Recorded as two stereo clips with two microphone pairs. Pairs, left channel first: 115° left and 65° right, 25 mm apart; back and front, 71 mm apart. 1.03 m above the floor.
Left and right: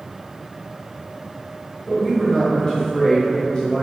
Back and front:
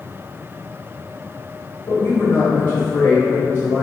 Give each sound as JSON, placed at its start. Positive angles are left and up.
{"t": 1.9, "sound": "a woman speaking", "azimuth_deg": 135, "distance_m": 0.9}